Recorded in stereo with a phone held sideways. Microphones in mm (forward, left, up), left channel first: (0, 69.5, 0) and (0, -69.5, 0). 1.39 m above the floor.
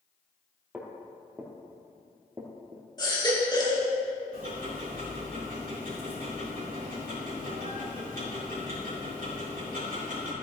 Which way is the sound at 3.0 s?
30° left (ahead or behind).